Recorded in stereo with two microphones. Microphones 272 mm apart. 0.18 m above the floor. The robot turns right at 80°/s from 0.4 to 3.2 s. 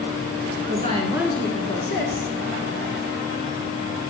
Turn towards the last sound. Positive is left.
turn(degrees=150)